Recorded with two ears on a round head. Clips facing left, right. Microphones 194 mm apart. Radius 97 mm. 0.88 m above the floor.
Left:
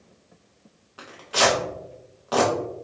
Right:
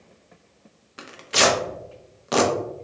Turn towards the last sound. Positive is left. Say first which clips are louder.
# right 1 dB
turn(degrees=-30)  # may be behind; listen again after turning